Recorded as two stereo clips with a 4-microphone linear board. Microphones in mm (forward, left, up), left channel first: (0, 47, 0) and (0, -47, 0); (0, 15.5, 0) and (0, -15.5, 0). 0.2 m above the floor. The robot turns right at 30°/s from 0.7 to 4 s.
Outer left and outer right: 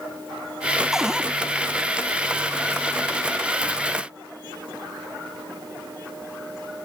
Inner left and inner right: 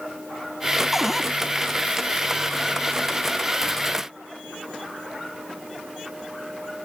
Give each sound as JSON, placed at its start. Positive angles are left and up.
{"t": 0.9, "sound": "a cupboard door", "side_deg": -5}